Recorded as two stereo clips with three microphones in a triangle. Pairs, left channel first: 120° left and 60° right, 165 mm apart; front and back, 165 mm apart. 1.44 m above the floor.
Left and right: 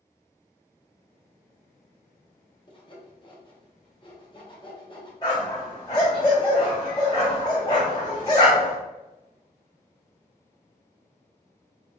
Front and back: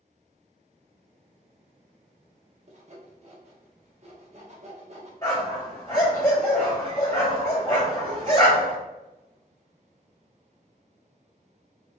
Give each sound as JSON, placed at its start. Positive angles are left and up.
{"t": 2.7, "sound": "sawing", "azimuth_deg": 165, "distance_m": 0.6}
{"t": 5.2, "sound": "a dog barking", "azimuth_deg": 60, "distance_m": 1.9}